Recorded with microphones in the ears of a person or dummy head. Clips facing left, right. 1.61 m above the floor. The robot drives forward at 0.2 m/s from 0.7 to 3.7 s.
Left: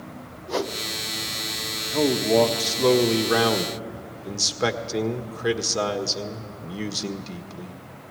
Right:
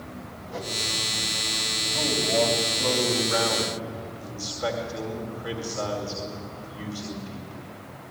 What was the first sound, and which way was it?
A whoosh, 75° left (ahead or behind).